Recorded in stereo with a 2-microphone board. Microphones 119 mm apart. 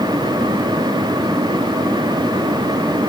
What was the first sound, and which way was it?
Only background noise.